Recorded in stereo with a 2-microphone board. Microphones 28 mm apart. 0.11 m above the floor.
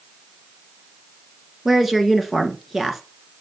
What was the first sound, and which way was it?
A woman speaking, 10° right (ahead or behind).